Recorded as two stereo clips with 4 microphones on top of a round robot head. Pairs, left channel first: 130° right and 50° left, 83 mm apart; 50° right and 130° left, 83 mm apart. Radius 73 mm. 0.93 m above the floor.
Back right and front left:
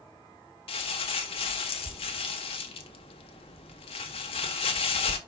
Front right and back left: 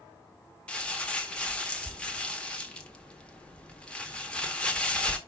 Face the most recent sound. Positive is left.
turn(degrees=-125)